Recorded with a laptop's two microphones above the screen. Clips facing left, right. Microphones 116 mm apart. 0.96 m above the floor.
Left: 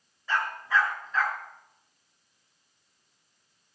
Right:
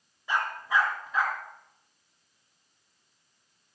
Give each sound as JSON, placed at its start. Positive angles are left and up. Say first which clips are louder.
{"t": 0.3, "sound": "a dog barking", "louder": "even", "side_deg": -15, "distance_m": 6.0}